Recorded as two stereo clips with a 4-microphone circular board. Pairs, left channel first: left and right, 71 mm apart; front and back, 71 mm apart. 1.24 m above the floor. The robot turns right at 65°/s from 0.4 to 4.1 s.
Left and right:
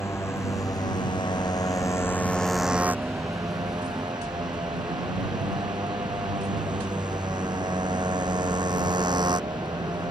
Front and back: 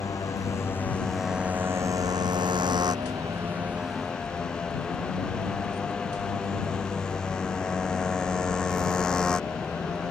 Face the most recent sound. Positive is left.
turn(degrees=-80)